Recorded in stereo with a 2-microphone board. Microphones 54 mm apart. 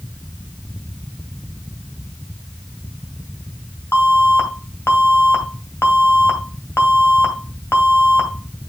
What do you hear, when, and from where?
3.9 s an alarm: 45° left (ahead or behind), 2 m